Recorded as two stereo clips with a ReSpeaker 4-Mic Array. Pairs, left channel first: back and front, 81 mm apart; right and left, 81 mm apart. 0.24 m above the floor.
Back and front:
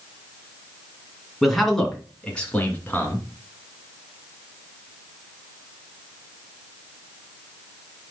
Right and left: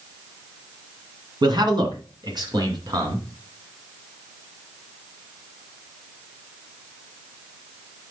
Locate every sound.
1.4 s a man speaking: 90° left, 2.0 m; by 3.2 s 120° left, 2 m